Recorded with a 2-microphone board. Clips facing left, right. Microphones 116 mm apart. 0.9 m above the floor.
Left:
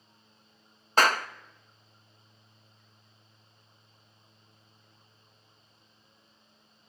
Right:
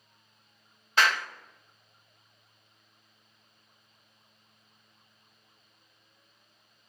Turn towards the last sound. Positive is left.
turn(degrees=40)  # may be behind; listen again after turning